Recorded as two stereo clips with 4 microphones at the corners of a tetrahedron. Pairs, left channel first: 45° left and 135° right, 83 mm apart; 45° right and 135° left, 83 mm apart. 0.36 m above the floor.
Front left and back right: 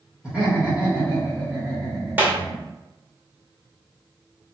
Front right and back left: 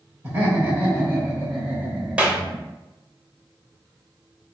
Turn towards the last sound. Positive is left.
turn(degrees=-170)